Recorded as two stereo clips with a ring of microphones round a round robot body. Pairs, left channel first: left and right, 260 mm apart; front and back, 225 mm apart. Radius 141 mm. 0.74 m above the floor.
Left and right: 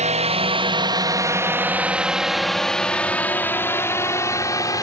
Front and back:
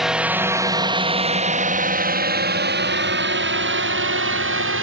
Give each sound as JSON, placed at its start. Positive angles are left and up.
{"t": 0.0, "sound": "a drone", "azimuth_deg": -95}